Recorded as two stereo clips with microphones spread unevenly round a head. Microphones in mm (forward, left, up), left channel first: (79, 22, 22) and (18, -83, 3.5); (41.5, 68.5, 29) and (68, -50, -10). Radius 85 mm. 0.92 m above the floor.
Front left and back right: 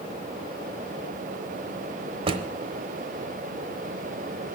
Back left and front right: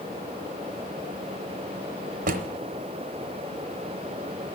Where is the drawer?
85° right, 0.9 m.